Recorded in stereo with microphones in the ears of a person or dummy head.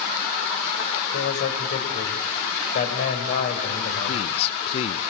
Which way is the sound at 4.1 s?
30° left (ahead or behind).